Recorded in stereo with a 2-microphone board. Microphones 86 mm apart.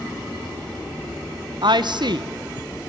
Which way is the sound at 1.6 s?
65° right (ahead or behind).